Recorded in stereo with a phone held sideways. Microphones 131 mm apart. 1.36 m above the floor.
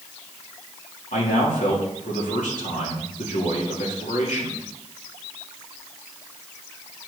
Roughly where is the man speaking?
Left.